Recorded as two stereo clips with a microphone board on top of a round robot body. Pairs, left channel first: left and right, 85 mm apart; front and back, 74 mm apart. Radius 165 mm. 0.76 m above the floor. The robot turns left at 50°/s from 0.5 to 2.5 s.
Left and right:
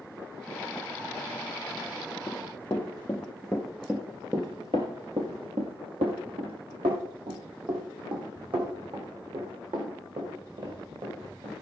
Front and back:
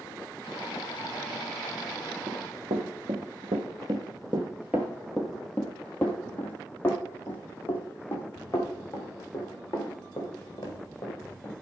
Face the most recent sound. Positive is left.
turn(degrees=-55)